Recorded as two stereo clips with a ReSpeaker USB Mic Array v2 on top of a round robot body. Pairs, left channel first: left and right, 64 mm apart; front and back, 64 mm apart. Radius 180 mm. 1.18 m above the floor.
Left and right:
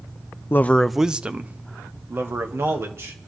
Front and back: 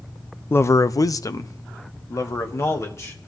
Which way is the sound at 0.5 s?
45° left.